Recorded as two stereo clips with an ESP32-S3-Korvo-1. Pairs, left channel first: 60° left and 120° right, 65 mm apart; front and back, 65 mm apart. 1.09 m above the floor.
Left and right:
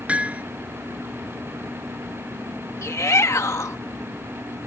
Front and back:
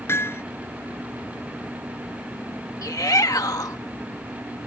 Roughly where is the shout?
Ahead.